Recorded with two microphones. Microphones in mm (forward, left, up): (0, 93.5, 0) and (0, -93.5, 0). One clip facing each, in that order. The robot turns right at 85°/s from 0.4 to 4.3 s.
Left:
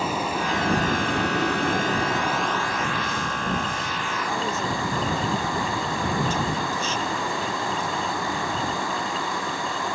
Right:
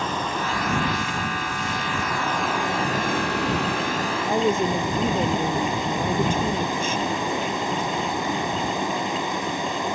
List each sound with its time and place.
0.0 s a vehicle: 10° left; by 9.9 s 20° right
4.2 s a woman speaking: 60° right (ahead or behind)